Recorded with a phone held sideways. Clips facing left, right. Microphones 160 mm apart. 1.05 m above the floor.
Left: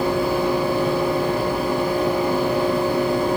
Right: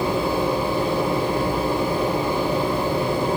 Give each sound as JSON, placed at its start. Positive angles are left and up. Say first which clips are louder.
{"t": 0.0, "sound": "a fan", "louder": "left 2 dB", "side_deg": -30, "distance_m": 7.0}